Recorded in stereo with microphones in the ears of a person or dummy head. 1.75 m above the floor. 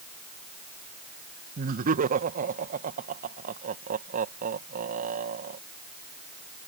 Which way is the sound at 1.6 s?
45° right (ahead or behind).